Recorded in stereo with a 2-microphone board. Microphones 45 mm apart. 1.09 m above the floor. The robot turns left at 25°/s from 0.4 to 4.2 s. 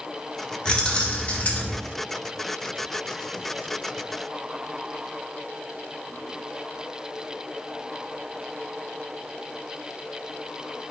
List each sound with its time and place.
0.7 s keys jangling: 20° left (ahead or behind), 0.7 m; by 1.8 s 45° left (ahead or behind), 0.7 m